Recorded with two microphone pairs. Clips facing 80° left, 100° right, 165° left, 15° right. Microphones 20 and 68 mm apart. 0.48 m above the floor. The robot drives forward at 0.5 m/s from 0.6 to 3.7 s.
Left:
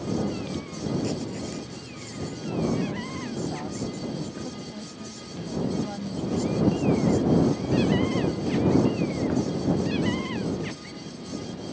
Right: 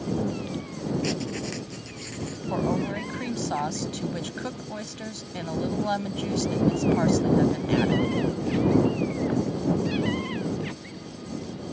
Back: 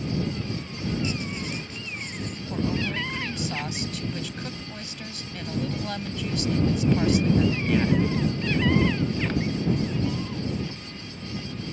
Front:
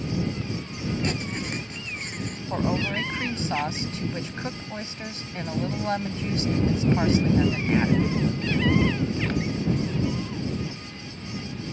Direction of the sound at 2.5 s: 65° right.